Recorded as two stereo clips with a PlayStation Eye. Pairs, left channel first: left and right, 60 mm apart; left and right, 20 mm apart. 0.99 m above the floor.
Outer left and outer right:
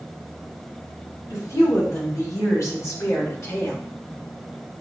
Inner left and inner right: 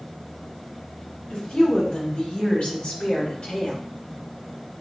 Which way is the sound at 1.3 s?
75° left (ahead or behind).